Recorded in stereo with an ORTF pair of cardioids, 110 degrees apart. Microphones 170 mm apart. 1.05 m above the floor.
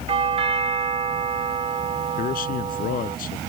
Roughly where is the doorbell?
Ahead right.